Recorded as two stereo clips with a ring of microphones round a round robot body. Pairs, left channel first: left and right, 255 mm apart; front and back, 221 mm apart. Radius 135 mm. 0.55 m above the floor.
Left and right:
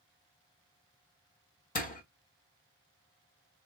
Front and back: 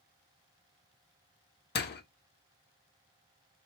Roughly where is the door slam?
Ahead left.